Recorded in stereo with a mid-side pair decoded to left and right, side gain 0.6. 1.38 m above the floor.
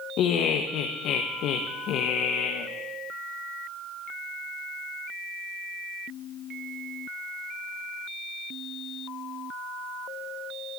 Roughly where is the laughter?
Ahead left.